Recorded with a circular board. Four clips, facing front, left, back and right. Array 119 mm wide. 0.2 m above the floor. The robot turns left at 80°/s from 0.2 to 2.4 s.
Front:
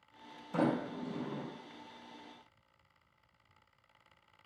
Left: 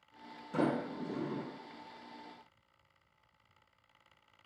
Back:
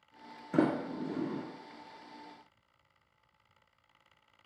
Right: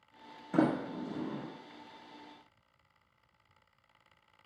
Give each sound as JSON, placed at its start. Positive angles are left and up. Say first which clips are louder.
{"t": 0.5, "sound": "a sliding door", "louder": "right 3 dB, back 3 dB", "azimuth_deg": -150, "distance_m": 0.9}